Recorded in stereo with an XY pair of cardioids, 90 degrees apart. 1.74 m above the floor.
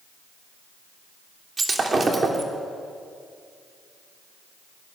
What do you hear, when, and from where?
1.6 s breaking glass: 35° right, 3 m